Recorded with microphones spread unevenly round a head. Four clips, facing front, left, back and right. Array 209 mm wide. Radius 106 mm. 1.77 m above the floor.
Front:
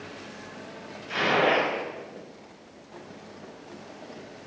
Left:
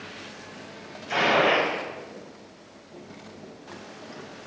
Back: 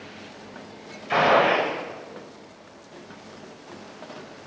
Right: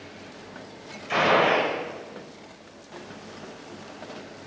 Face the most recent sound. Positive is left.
turn(degrees=-170)